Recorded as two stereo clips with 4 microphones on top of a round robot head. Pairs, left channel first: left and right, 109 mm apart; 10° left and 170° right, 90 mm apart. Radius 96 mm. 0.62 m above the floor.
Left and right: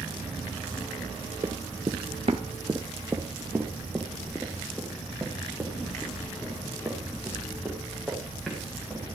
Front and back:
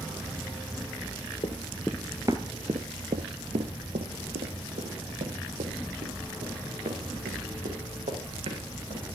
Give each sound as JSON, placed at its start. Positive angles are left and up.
{"t": 1.4, "sound": "running footsteps", "azimuth_deg": -35, "distance_m": 0.9}